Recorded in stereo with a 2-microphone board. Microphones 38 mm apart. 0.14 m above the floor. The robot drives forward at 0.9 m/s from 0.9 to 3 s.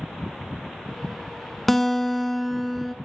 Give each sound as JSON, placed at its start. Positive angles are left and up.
{"t": 1.7, "sound": "a guitar", "side_deg": 5, "distance_m": 0.8}